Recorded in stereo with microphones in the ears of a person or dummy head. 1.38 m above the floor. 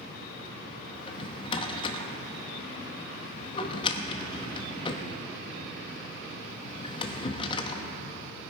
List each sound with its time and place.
0.9 s a drawer: 30° left (ahead or behind), 1.1 m